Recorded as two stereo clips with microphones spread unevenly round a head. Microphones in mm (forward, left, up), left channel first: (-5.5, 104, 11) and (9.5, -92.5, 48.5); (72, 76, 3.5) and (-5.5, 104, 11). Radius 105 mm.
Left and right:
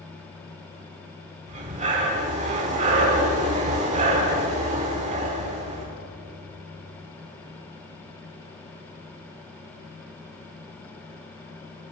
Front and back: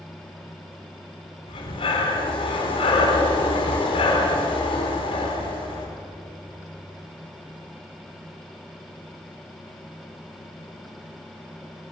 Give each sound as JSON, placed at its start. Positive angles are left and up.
{"t": 1.5, "sound": "breathing", "azimuth_deg": -30, "distance_m": 4.0}